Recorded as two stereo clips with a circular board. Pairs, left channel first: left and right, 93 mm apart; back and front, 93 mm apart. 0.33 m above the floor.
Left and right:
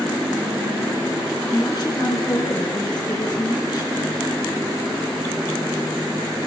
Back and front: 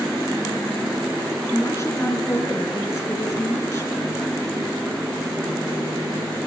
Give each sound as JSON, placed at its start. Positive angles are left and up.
{"t": 1.5, "sound": "a woman speaking", "azimuth_deg": 130, "distance_m": 4.0}